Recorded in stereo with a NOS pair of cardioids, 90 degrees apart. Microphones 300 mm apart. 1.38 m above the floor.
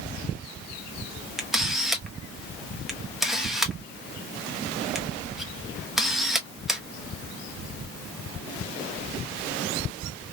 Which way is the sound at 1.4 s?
Straight ahead.